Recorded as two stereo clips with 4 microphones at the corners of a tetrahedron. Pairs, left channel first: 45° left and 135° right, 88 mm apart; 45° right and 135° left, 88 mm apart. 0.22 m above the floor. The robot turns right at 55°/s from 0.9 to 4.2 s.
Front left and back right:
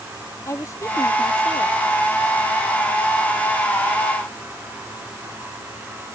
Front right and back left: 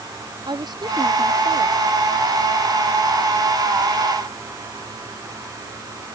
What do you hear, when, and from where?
0.5 s a woman speaking: 100° left; by 1.8 s 150° left